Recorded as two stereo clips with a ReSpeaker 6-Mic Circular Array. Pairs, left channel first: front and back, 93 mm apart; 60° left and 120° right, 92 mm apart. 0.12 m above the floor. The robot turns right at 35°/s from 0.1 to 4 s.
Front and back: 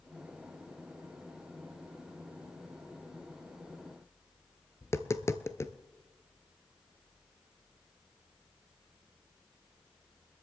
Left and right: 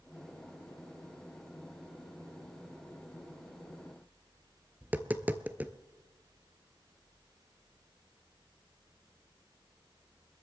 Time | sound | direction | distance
4.8 | tapping | 50° right | 0.8 m